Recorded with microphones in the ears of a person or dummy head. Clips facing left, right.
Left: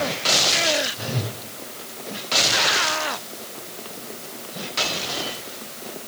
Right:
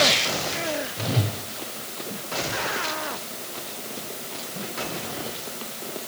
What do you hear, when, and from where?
1.0 s a whoosh: 5° right (ahead or behind), 3.5 m